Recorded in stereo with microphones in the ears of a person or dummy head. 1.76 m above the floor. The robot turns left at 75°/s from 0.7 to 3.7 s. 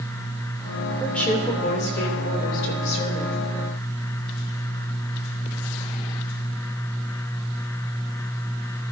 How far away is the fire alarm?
No fire alarm in this recording.